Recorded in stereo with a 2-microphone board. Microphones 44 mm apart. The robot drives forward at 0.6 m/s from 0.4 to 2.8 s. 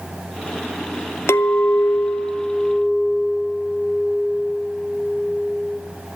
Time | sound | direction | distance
1.3 | a clink | 85° left | 0.8 m